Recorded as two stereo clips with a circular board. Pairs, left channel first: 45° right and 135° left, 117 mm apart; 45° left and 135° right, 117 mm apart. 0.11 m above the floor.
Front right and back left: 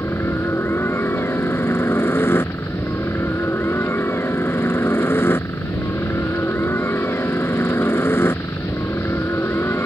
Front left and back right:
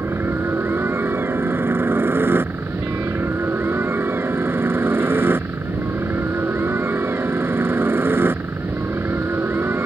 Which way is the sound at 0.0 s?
90° right.